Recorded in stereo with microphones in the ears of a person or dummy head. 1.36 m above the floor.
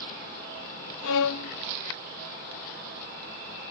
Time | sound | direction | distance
1.0 | a violin | 85° left | 0.6 m